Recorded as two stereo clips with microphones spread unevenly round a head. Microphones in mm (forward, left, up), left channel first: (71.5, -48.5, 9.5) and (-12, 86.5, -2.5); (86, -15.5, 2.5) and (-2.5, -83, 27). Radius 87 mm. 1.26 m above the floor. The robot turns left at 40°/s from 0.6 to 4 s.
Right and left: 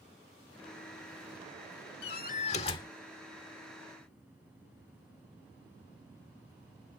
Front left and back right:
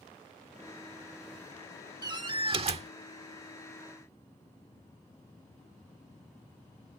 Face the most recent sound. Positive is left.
turn(degrees=-170)